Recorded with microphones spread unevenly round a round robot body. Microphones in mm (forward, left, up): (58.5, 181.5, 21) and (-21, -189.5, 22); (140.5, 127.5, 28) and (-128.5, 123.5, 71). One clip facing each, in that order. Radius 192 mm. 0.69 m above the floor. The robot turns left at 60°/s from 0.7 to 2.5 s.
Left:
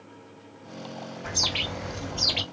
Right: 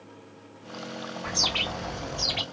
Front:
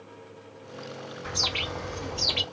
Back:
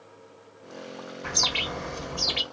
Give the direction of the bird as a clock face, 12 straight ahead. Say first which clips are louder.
Even, back 1 dB; 7 o'clock.